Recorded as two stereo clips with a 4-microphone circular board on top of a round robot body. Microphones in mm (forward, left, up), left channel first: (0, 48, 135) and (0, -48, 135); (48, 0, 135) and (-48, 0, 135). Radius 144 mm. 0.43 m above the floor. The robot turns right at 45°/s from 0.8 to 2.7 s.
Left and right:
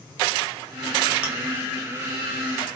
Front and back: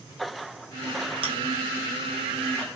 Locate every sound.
1.2 s chewing: 165° right, 2.5 m; by 1.3 s 160° right, 2.5 m